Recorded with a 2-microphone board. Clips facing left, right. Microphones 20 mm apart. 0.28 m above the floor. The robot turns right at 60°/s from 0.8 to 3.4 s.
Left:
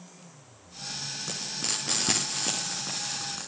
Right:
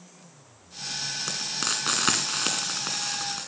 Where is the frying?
40° right (ahead or behind), 6 m; by 3.5 s 15° right (ahead or behind), 6 m.